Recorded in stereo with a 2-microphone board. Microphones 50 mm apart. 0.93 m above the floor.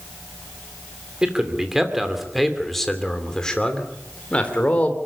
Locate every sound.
1.2 s a man speaking: 15° right (ahead or behind), 2.5 m; by 5.0 s 30° left (ahead or behind), 3 m